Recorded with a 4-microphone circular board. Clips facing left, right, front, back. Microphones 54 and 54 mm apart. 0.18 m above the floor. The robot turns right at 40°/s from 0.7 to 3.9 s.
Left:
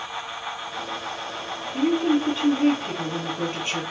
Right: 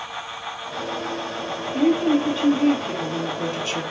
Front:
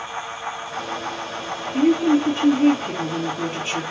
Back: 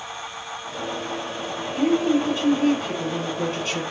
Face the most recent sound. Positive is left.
turn(degrees=65)